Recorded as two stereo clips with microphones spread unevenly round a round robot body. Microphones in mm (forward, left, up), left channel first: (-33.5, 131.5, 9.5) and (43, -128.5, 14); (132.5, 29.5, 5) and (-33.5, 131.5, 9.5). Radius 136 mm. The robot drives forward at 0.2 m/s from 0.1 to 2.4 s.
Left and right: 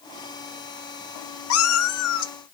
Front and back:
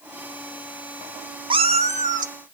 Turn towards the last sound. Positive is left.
turn(degrees=120)